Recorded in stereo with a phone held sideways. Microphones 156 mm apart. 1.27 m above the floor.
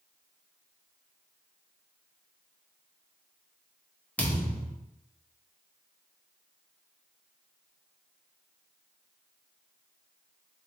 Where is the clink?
I don't hear a clink.